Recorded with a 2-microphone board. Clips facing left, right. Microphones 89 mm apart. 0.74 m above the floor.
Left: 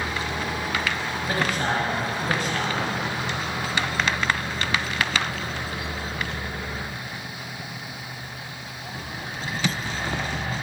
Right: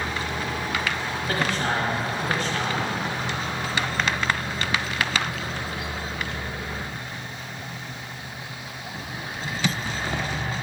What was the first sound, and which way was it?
A man speaking, 20° left (ahead or behind).